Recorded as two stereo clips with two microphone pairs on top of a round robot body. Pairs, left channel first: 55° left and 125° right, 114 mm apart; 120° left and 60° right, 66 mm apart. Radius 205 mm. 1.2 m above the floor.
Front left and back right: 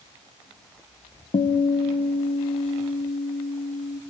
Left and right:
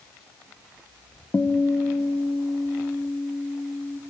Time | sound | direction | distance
1.3 | a guitar | 70° left | 0.9 m